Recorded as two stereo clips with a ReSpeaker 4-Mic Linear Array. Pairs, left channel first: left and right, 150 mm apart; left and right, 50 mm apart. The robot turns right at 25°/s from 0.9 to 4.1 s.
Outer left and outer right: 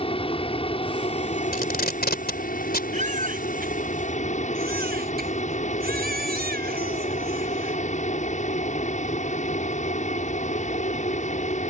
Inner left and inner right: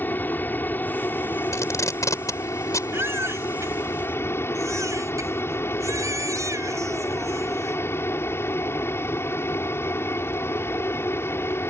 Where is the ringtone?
No ringtone in this recording.